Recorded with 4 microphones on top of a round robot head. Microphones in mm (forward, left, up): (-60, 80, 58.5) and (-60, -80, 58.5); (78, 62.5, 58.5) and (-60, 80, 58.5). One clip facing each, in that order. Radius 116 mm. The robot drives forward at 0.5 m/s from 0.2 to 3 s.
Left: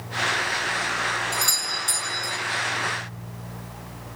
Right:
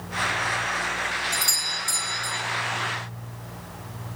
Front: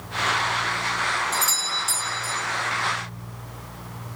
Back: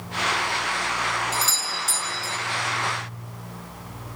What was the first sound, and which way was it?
A doorbell, 140° left.